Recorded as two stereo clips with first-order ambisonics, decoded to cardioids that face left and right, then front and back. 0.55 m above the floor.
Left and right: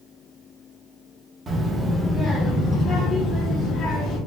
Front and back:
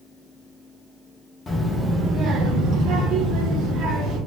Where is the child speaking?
45° right, 0.6 m; by 4.2 s 150° left, 1.5 m.